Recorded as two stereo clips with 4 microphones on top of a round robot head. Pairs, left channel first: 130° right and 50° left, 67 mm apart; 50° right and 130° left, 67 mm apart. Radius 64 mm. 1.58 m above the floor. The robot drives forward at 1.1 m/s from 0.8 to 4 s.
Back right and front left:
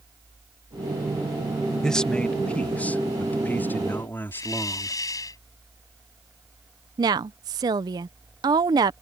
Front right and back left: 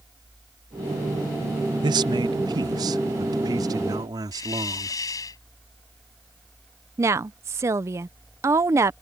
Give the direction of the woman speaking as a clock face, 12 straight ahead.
9 o'clock.